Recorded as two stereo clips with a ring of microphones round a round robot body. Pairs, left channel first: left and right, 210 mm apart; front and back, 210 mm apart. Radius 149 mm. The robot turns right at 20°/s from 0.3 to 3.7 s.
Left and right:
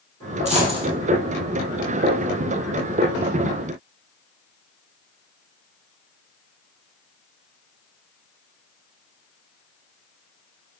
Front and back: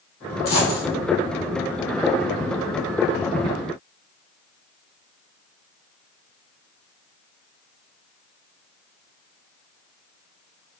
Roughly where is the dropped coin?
Ahead right.